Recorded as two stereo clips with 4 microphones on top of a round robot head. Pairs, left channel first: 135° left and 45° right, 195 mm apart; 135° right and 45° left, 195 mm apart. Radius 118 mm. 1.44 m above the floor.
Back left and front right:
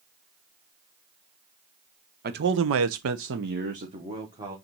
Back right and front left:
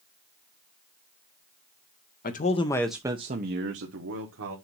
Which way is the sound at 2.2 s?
85° right.